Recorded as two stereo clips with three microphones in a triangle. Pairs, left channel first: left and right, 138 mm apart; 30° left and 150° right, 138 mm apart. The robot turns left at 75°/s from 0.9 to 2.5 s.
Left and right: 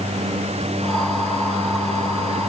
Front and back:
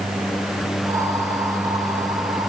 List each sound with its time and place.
Only background noise.